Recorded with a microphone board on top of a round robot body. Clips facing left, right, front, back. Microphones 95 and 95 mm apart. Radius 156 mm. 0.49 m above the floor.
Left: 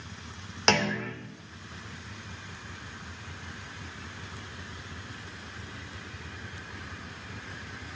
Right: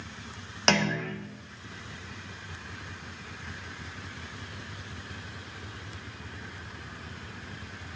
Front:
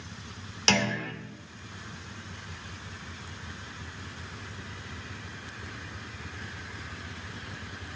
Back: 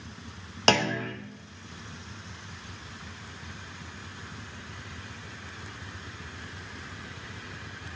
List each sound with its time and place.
0.7 s a clunk: straight behind, 1.6 m